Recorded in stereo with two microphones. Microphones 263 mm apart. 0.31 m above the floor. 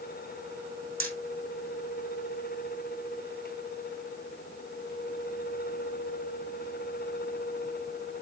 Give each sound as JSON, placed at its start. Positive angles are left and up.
{"t": 1.0, "sound": "hammering", "side_deg": -50, "distance_m": 4.5}